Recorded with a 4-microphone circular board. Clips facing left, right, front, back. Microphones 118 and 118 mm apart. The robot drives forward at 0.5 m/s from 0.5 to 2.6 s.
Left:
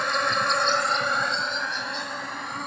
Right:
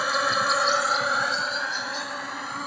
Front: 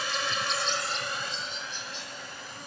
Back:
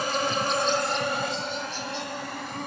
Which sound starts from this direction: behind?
An insect, at 0.0 s.